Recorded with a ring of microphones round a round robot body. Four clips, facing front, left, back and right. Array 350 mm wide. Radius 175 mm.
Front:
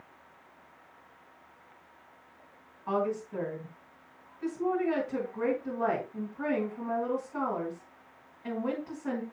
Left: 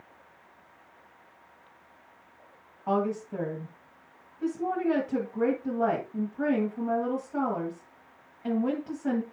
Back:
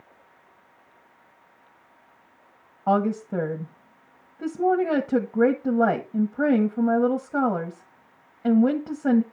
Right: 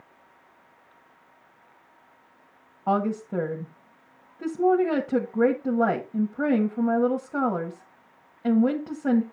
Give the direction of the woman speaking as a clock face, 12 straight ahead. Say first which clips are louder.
Right 3 dB, back 8 dB; 5 o'clock.